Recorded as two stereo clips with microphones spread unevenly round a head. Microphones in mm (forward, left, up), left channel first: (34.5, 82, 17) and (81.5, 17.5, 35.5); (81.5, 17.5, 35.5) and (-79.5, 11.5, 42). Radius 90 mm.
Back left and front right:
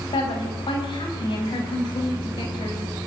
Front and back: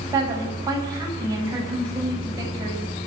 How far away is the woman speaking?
About 8 m.